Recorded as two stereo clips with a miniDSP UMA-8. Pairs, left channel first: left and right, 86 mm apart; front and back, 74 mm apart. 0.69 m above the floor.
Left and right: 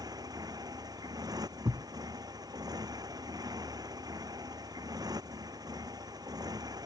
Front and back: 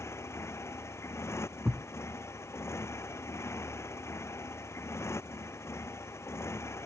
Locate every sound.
0.0 s a motorcycle: 50° right
1.6 s a thud: 110° right